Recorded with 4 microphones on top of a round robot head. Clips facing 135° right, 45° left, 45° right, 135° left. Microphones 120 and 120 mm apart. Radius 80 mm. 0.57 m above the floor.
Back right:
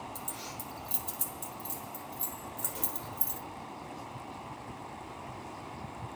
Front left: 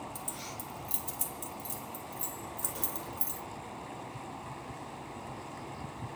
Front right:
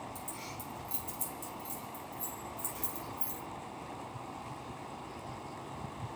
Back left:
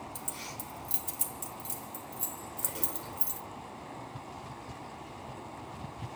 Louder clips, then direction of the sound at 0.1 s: Even, back left 1 dB; 135° left.